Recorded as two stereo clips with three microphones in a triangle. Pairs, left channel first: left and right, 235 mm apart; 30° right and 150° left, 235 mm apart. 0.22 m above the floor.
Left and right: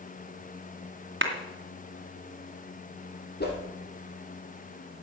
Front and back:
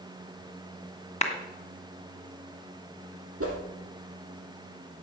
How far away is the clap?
About 2 m.